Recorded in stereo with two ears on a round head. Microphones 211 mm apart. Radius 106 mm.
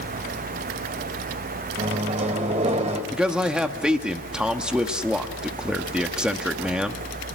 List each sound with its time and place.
1.8 s a microwave: 30° right (ahead or behind), 3 m
3.1 s a man speaking: 5° right (ahead or behind), 1.2 m